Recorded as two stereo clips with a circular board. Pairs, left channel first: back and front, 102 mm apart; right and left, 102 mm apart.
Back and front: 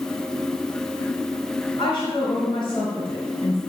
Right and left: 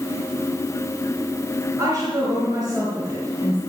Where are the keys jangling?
I don't hear keys jangling.